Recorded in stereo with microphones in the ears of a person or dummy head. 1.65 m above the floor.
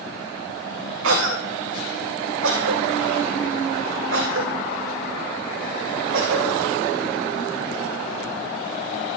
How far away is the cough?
About 1.2 m.